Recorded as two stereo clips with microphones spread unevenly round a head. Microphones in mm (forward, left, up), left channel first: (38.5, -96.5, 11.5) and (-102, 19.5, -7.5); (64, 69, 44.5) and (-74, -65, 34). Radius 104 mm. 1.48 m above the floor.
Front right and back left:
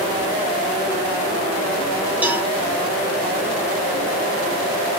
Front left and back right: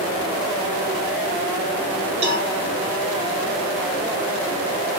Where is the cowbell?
135° right, 1.2 m.